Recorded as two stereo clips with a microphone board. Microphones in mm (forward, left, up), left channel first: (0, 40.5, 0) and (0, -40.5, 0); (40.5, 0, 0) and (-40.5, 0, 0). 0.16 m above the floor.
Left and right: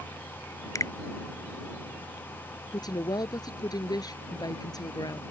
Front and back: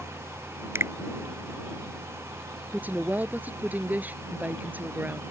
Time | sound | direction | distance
0.8 | a finger snap | 125° left | ?
2.7 | a woman speaking | 115° left | ?